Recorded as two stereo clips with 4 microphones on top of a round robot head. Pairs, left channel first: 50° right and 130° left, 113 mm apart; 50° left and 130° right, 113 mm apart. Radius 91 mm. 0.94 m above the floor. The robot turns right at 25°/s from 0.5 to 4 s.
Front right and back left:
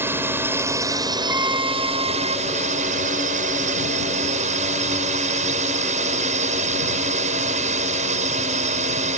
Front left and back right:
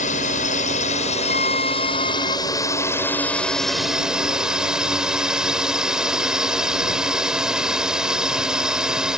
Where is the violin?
60° left; by 2.4 s 85° left.